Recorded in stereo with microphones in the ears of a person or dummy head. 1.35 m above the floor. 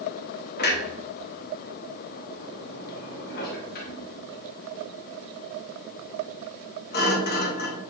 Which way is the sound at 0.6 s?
50° left (ahead or behind).